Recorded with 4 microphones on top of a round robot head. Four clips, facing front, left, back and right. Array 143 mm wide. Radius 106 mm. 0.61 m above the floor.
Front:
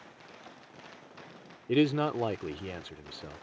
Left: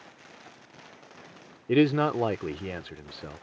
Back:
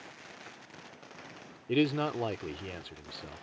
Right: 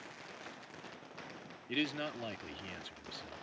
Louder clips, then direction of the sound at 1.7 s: Left 16 dB, front 2 dB; 80° left.